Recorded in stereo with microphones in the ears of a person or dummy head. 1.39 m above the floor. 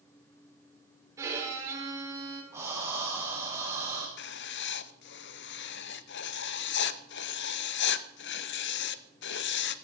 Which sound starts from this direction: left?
Writing, at 4.2 s.